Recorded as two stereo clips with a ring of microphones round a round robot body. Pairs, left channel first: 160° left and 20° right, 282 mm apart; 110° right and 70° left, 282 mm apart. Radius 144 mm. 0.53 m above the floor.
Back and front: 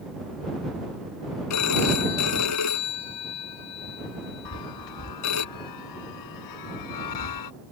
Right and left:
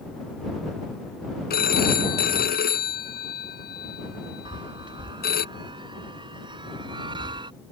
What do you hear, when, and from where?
1.5 s a phone ringing: 170° right
4.5 s a chime: 140° left